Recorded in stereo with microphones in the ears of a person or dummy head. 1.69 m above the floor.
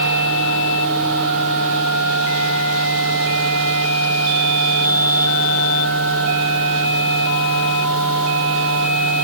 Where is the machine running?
70° right (ahead or behind), 6.5 m.